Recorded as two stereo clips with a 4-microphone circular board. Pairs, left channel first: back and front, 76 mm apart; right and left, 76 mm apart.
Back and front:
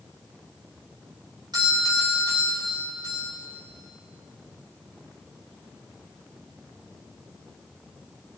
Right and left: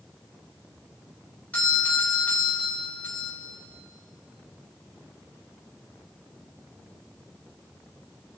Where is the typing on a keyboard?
No typing on a keyboard in this recording.